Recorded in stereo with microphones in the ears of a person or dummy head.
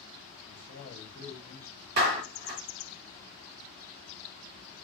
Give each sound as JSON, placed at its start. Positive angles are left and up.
{"t": 0.5, "sound": "a man speaking", "side_deg": 35, "distance_m": 0.8}
{"t": 2.0, "sound": "a clap", "side_deg": -55, "distance_m": 1.7}